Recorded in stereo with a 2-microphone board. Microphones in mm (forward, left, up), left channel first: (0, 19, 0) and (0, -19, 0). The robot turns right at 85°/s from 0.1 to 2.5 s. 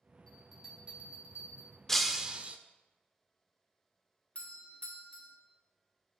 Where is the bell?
20° left (ahead or behind), 4 m; by 1.8 s 70° right (ahead or behind), 4 m.